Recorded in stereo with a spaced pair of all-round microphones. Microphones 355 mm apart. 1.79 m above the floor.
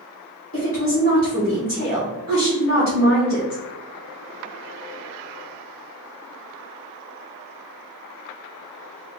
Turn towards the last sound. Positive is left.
turn(degrees=35)  # may be behind; listen again after turning